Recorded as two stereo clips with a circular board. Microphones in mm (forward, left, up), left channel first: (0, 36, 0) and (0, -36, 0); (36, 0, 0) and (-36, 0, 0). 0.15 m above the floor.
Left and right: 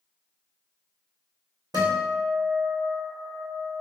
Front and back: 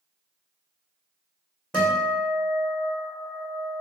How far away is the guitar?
About 1.7 m.